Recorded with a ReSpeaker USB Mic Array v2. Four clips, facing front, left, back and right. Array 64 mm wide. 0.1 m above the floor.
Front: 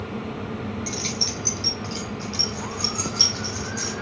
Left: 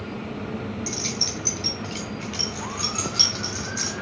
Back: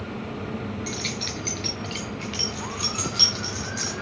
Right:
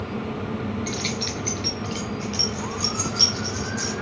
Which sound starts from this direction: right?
Keys jangling, at 0.9 s.